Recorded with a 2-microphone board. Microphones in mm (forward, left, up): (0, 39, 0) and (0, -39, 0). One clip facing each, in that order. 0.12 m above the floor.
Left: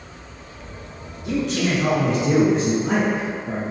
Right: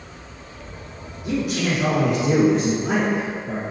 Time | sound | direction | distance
1.2 | a man speaking | 10° right (ahead or behind) | 1.3 m